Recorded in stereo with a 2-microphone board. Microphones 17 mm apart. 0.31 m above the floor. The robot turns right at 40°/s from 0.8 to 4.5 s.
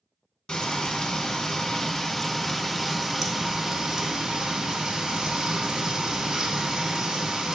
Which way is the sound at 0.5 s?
105° left.